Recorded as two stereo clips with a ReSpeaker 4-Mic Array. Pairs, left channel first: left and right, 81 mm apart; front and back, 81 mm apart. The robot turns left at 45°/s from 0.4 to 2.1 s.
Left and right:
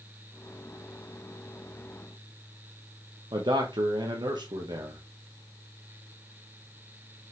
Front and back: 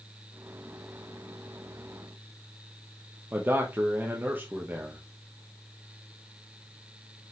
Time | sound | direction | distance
3.3 | a man speaking | 115° right | 1.2 m